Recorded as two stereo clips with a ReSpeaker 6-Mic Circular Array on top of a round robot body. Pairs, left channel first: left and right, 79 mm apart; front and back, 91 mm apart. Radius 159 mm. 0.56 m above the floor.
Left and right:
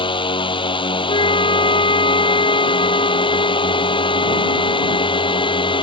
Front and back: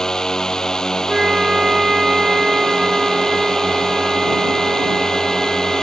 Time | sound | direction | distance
0.0 | a drone | 85° left | ?
1.1 | a flute | 95° left | ?